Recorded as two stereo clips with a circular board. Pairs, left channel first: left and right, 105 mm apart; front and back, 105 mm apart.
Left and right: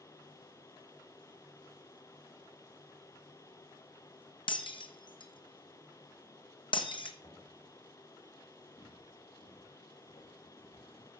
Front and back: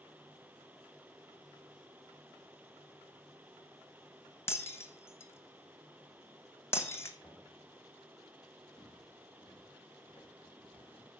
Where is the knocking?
85° left, 3 m.